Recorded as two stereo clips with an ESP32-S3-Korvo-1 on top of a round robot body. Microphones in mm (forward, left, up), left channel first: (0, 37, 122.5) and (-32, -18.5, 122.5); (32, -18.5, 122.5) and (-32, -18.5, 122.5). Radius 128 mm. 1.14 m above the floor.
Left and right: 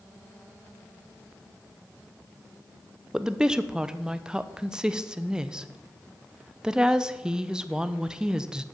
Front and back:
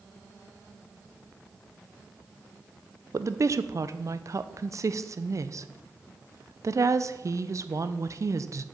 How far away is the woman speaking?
About 0.7 m.